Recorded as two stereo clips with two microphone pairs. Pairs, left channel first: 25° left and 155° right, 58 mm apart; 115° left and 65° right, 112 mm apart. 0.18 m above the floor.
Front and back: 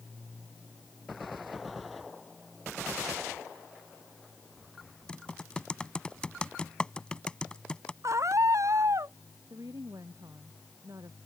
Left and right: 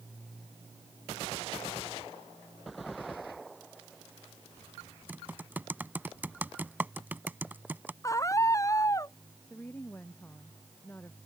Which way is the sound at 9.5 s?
170° right.